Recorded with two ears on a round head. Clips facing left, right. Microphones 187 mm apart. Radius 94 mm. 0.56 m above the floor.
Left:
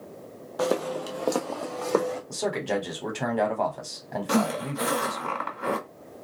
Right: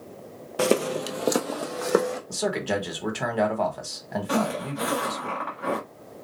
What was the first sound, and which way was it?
Footsteps, 35° right (ahead or behind).